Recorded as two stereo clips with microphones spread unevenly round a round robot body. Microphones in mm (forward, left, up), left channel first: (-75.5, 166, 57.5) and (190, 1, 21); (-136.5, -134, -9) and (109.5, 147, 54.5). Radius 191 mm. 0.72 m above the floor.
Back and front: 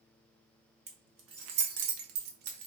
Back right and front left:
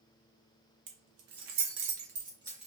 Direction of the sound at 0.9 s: 30° left.